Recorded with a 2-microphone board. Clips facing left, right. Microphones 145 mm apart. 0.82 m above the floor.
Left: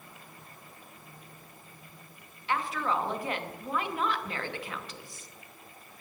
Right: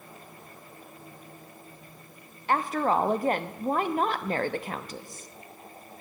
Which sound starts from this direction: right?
A woman speaking, at 2.5 s.